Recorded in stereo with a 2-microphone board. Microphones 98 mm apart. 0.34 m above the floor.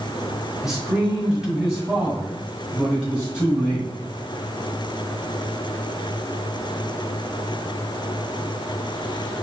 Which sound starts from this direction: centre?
A man speaking, at 0.6 s.